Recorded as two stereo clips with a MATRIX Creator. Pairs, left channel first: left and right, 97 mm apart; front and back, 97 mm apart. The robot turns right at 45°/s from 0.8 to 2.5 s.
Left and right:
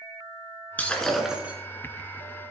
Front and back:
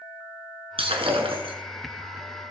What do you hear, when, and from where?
0.8 s breaking glass: 165° left, 2 m; by 1.6 s 165° right, 2 m